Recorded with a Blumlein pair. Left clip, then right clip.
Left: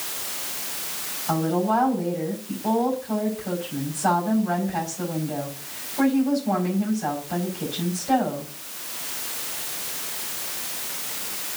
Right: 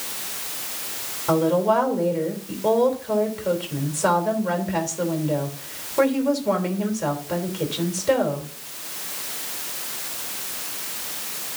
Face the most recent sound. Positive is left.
turn(degrees=-60)